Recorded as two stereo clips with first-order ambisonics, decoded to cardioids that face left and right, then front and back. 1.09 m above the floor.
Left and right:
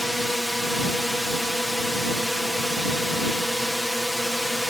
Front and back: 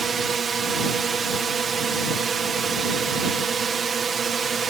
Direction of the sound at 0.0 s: 170° left.